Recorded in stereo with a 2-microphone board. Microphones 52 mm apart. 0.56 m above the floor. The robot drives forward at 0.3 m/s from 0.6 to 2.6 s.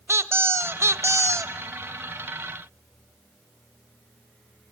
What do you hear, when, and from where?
0.1 s a squeak: 55° right (ahead or behind), 0.7 m; by 1.5 s 75° right (ahead or behind), 0.6 m